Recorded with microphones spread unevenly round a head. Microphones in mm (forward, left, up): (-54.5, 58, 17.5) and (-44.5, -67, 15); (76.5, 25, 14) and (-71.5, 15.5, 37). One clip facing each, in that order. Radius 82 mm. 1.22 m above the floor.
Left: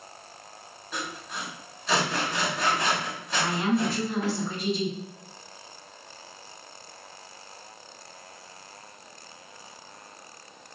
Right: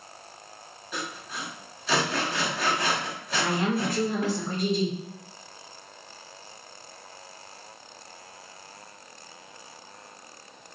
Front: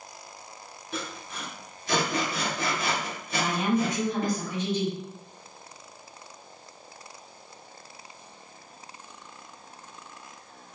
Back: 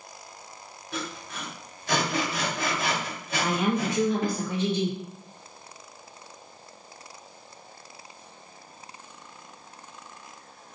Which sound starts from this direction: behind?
Sawing, at 0.9 s.